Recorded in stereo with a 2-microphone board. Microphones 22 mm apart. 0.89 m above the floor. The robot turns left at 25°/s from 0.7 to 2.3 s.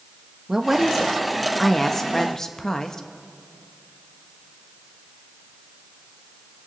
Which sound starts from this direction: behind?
A woman speaking, at 0.5 s.